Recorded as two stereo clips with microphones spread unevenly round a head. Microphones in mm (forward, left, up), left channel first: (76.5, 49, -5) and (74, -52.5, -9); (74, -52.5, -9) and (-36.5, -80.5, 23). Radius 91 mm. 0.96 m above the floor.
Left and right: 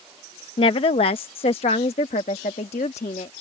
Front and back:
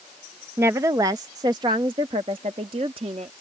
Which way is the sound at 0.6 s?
110° left.